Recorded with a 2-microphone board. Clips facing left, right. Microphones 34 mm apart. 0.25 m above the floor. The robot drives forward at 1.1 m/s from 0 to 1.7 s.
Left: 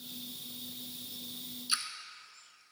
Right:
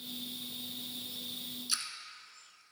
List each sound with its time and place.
1.7 s a splash: 25° left (ahead or behind), 1.1 m